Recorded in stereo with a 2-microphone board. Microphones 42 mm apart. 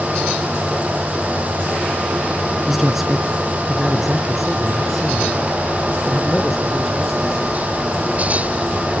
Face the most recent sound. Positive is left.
turn(degrees=0)  # may be behind; listen again after turning